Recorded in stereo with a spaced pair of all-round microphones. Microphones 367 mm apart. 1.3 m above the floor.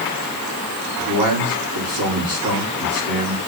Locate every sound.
1.0 s a man speaking: 60° right (ahead or behind), 4 m